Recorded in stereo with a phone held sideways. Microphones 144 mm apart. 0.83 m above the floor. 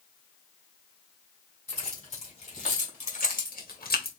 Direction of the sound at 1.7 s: 45° left (ahead or behind).